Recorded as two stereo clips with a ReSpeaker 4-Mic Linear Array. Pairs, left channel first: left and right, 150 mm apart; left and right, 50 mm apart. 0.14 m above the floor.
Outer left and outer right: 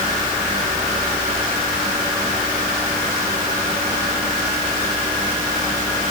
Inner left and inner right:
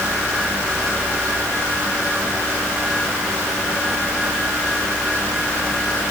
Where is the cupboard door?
No cupboard door in this recording.